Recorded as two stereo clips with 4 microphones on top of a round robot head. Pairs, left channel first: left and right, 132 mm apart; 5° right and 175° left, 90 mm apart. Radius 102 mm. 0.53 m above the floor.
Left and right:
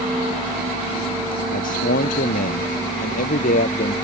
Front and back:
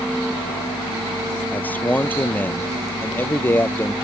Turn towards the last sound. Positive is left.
turn(degrees=65)